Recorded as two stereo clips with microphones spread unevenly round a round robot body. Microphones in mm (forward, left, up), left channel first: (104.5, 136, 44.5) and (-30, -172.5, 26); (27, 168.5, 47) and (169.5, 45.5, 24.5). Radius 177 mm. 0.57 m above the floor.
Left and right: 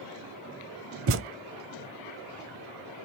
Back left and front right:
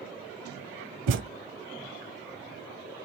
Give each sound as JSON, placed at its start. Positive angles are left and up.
{"t": 1.1, "sound": "a thud", "azimuth_deg": -60, "distance_m": 0.5}